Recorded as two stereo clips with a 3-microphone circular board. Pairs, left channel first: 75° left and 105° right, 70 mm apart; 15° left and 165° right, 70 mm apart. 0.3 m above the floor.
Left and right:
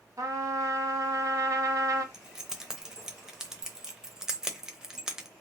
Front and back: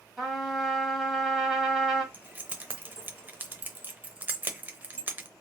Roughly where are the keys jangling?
Behind.